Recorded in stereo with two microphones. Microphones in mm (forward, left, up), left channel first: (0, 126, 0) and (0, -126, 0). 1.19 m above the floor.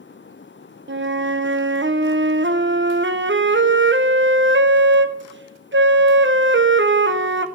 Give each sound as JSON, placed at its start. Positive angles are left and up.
{"t": 0.9, "sound": "a flute", "side_deg": -50, "distance_m": 0.6}